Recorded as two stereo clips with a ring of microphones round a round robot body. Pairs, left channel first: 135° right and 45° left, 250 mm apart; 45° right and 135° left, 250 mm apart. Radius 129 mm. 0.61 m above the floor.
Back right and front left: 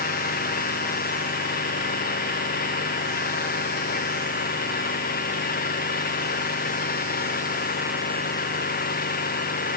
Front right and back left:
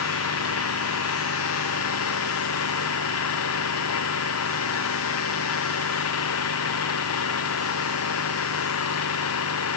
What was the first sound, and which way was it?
An engine running, 80° right.